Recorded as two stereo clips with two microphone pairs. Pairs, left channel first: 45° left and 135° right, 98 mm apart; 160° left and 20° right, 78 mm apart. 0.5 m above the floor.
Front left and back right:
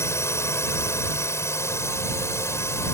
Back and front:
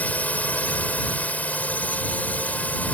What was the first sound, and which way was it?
A drone, 95° left.